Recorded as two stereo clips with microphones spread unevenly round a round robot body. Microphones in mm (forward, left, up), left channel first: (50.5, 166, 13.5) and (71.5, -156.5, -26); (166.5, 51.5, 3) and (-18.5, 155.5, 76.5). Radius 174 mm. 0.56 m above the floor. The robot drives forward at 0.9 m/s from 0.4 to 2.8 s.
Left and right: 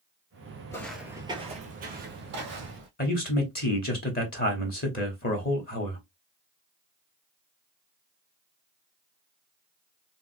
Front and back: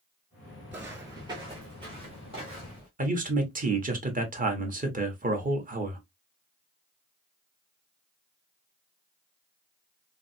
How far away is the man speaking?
About 1.0 m.